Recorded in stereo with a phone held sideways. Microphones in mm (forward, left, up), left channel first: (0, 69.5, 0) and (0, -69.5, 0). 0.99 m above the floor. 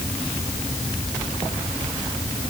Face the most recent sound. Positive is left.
No sound to turn to.